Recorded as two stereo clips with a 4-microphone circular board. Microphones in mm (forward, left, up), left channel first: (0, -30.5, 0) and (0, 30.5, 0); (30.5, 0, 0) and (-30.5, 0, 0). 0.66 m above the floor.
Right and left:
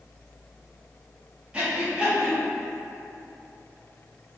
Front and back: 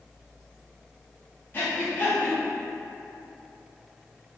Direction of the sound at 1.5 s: 30° left.